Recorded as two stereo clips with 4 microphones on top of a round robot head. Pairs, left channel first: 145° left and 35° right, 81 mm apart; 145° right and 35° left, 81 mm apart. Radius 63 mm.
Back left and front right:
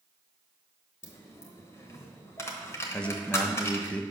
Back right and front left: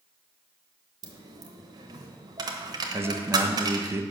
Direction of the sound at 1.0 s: 85° left.